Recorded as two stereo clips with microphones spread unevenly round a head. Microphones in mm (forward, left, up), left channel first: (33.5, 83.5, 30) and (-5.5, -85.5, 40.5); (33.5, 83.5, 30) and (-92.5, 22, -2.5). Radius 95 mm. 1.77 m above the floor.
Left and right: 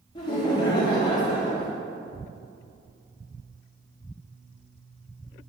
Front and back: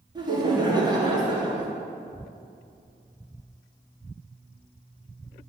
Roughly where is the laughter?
Behind left.